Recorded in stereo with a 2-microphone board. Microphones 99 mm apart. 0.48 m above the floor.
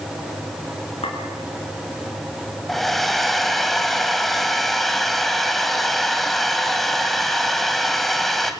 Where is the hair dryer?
Centre (ahead or behind), 2 m.